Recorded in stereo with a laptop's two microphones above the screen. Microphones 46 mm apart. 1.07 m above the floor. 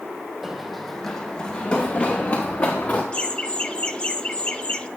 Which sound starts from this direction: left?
Laughter, at 3.1 s.